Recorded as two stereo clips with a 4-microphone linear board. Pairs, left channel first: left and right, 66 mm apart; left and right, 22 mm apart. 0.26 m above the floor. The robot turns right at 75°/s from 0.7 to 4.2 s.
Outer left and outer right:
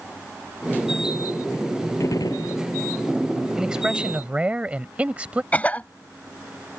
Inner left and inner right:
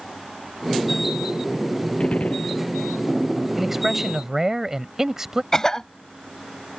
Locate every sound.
2.0 s a gunshot: 50° left; by 2.6 s 95° left
3.6 s a man speaking: 5° right (ahead or behind); by 5.4 s 20° right (ahead or behind)
5.5 s a cough: 25° left (ahead or behind)